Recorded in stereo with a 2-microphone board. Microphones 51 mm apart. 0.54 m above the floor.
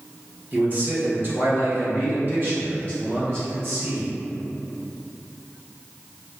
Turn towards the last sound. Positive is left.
turn(degrees=-40)  # may be behind; listen again after turning